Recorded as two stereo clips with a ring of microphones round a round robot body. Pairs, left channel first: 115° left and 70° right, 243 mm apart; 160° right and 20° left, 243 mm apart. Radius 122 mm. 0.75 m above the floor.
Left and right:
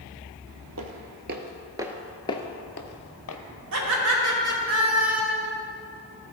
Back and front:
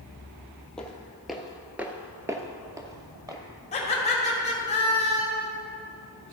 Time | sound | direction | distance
0.8 | footsteps | 70° right | 1.1 m
3.7 | laughter | 95° right | 2.5 m